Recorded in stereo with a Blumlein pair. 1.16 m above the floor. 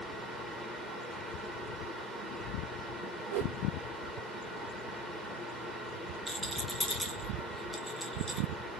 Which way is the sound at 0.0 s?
5° right.